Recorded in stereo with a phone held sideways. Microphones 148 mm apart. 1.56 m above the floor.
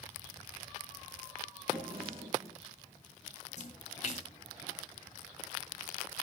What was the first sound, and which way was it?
A drawer, 40° right (ahead or behind).